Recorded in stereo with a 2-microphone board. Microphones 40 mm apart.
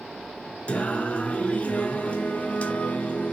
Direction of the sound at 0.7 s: 30° left (ahead or behind).